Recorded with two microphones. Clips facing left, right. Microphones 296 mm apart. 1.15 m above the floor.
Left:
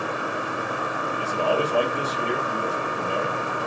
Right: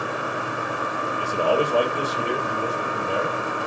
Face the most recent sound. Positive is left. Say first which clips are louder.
# right 2 dB
turn(degrees=-15)  # may be behind; listen again after turning